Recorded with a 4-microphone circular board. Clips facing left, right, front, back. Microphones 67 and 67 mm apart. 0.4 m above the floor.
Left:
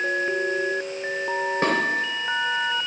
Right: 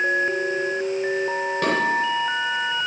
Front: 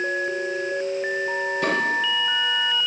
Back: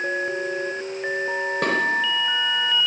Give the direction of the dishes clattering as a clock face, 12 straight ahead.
7 o'clock.